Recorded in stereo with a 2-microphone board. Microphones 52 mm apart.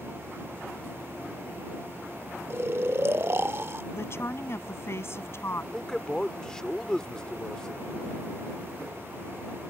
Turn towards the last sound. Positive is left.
turn(degrees=15)  # may be behind; listen again after turning